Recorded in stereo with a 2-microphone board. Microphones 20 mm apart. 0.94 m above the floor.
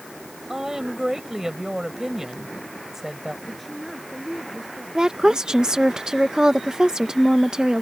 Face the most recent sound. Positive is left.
turn(degrees=-40)  # may be behind; listen again after turning